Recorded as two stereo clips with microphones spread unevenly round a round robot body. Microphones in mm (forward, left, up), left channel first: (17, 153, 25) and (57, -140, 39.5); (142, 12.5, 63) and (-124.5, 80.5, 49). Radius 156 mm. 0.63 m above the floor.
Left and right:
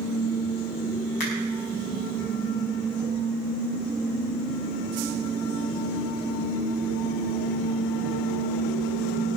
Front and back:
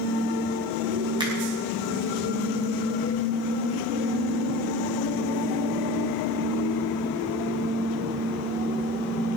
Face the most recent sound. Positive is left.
turn(degrees=90)